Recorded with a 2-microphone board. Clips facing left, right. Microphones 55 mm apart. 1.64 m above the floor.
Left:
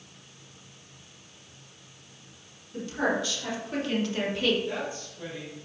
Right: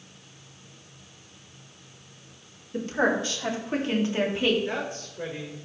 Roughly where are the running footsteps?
I don't hear running footsteps.